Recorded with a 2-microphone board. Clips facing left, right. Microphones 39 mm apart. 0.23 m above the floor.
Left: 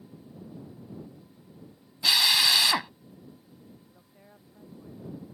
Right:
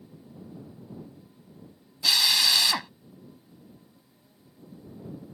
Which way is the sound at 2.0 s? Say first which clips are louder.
Left 1 dB; 10° left (ahead or behind).